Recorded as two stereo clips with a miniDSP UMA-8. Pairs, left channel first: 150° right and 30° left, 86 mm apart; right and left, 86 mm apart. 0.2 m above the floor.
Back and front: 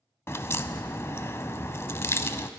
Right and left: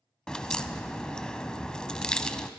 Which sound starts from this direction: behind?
A crack, at 0.3 s.